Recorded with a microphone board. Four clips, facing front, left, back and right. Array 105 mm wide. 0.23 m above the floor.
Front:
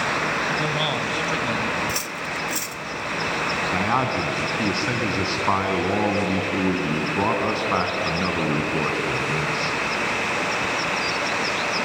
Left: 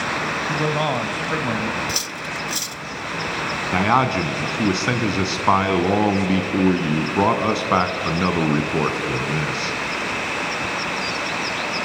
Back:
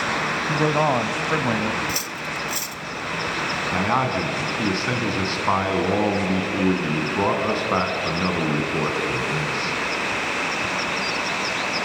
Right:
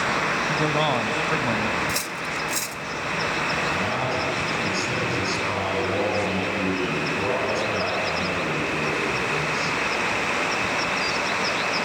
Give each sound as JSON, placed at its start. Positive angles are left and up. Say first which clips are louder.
{"t": 0.5, "sound": "a man speaking", "louder": "left 2 dB, back 5 dB", "azimuth_deg": 170, "distance_m": 1.3}
{"t": 1.9, "sound": "cutlery clinking", "louder": "even, even", "azimuth_deg": -80, "distance_m": 0.6}
{"t": 3.7, "sound": "a man speaking", "louder": "left 7 dB, back 2 dB", "azimuth_deg": 90, "distance_m": 2.5}